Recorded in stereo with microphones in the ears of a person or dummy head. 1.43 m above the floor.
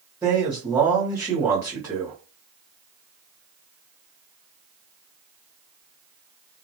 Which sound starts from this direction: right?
A man speaking, at 0.2 s.